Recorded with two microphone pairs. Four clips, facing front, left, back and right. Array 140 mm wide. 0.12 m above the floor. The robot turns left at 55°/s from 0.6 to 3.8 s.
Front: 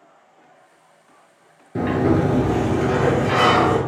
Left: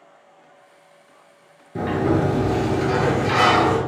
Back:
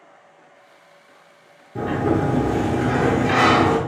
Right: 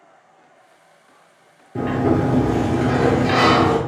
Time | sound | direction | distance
1.8 | a sliding door | 25° right | 0.7 m